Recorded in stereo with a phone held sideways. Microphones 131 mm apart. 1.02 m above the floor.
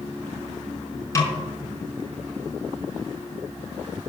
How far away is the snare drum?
About 4.5 m.